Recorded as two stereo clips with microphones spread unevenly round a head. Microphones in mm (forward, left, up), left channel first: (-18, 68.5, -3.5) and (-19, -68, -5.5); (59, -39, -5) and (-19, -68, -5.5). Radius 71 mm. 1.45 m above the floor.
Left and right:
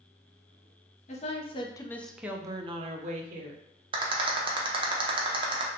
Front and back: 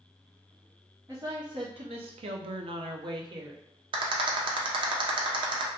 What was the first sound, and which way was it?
A woman speaking, 130° left.